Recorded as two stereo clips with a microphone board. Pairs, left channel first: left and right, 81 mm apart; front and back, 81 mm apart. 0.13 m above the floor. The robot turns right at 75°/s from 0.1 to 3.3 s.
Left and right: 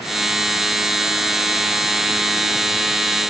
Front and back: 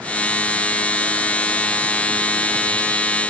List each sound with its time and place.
Only background noise.